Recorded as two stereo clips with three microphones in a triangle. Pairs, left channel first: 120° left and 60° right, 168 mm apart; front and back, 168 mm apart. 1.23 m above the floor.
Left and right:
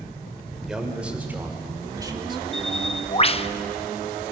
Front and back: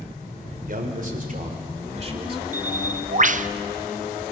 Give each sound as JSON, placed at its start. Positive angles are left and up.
{"t": 0.7, "sound": "a man speaking", "azimuth_deg": -145, "distance_m": 4.0}
{"t": 2.5, "sound": "a bird", "azimuth_deg": 160, "distance_m": 0.6}